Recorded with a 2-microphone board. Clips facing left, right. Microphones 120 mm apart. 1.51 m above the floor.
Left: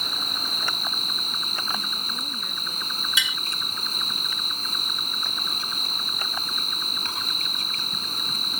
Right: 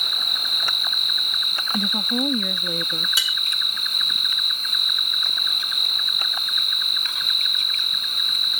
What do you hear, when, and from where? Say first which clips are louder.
0.0 s an insect: left 1 dB; 40° left (ahead or behind)
1.7 s a woman speaking: right 10 dB; 90° right
3.2 s tapping: left 2 dB; 35° right (ahead or behind)